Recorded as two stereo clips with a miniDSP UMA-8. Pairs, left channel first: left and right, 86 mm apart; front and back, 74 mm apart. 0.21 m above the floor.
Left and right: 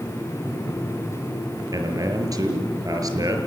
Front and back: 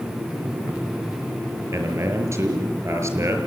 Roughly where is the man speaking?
Behind right.